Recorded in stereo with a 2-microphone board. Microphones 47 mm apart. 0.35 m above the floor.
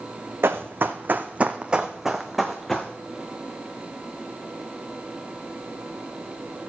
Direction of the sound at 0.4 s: 65° right (ahead or behind).